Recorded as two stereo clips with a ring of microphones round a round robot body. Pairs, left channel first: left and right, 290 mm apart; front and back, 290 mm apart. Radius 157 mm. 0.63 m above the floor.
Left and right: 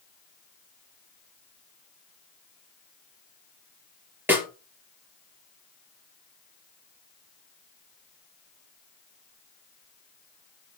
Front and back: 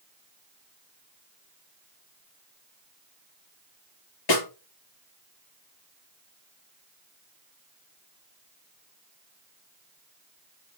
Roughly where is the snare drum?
Ahead.